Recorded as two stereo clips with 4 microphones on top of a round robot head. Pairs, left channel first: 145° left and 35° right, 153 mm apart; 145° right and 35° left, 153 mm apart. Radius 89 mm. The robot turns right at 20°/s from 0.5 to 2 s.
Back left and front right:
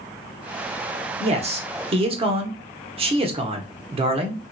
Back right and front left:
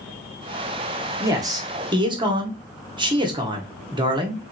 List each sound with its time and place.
1.2 s a man speaking: 20° right, 0.9 m; by 4.4 s 5° right, 0.9 m